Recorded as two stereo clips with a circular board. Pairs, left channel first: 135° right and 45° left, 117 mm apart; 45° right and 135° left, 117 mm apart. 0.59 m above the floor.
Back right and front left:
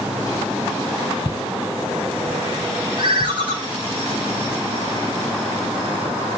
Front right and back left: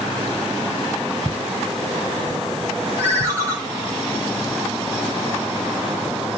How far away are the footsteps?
About 0.7 m.